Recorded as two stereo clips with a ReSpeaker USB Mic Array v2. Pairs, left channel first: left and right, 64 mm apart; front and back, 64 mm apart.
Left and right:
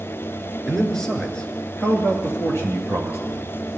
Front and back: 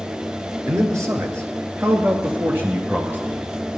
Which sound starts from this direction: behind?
A man speaking, at 0.7 s.